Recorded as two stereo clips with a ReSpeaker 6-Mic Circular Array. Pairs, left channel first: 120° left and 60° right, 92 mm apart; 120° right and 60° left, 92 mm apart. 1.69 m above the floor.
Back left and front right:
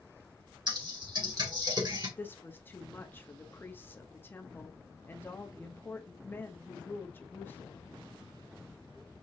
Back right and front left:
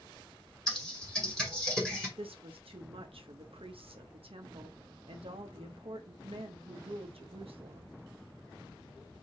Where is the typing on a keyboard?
35° right, 2.5 m.